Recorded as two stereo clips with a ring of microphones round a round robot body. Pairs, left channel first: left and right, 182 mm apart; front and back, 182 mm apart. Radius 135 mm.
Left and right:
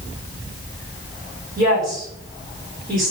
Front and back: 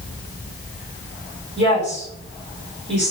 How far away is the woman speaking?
About 4.5 m.